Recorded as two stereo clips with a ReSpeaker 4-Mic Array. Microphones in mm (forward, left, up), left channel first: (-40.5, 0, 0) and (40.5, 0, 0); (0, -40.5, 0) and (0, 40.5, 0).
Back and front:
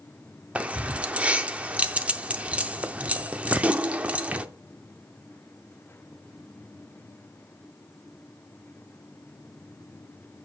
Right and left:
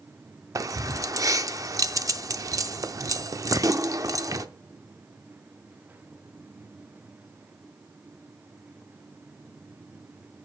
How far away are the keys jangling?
About 0.5 m.